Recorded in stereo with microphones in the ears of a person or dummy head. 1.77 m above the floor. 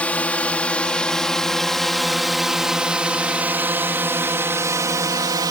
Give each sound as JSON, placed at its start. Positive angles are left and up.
{"t": 0.0, "sound": "a drone", "side_deg": 10}